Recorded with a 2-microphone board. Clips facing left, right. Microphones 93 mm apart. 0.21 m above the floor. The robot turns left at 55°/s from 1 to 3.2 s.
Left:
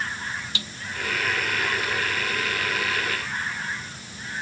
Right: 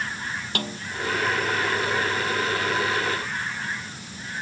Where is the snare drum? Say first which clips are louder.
Right 8 dB; 55° right (ahead or behind).